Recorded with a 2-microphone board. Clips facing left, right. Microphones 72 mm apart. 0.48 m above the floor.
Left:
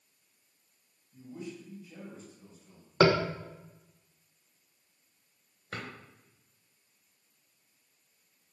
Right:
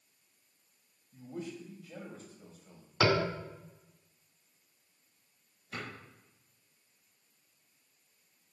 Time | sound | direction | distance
1.1 | a man speaking | 65° right (ahead or behind) | 2 m
3.0 | tapping | 45° left (ahead or behind) | 0.9 m
5.7 | a drawer | 60° left (ahead or behind) | 3 m